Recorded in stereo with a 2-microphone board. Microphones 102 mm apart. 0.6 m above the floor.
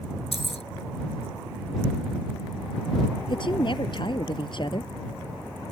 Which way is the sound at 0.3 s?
80° left.